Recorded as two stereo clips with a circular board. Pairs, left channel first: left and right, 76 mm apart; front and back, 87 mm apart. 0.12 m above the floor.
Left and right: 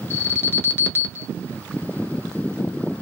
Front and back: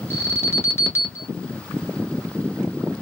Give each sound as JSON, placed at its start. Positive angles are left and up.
{"t": 0.1, "sound": "an alarm", "azimuth_deg": 45, "distance_m": 0.9}